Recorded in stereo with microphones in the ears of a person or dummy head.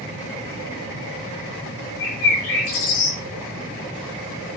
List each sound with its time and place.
2.0 s a bird: 75° left (ahead or behind), 6 m